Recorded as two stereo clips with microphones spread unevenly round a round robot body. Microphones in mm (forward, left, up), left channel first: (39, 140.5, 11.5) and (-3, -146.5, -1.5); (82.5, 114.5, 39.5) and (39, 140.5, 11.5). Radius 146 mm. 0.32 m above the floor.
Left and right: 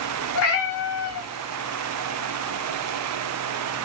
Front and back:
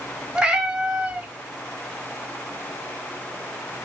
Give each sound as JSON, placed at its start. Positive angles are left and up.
{"t": 0.3, "sound": "a cat meowing", "azimuth_deg": 115, "distance_m": 0.7}